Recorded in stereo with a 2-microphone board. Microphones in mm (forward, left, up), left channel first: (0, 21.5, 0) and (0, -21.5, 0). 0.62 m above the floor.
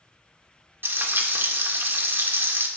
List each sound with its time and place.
0.8 s frying: 55° right (ahead or behind), 0.7 m